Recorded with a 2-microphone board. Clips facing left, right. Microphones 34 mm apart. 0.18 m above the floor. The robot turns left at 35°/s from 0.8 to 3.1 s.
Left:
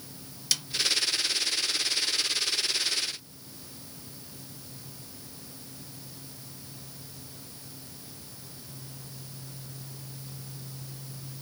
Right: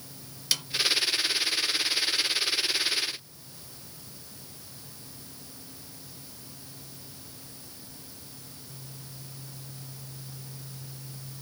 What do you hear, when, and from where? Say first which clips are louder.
0.5 s a snare drum: right 1 dB; 15° right (ahead or behind), 1.4 m